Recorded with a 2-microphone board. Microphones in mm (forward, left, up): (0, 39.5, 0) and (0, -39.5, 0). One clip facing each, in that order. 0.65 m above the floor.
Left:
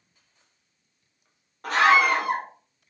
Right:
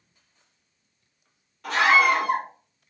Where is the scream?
40° left (ahead or behind), 1.3 m.